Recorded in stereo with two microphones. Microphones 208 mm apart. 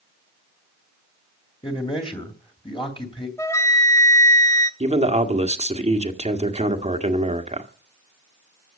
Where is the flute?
15° left (ahead or behind), 1.4 m.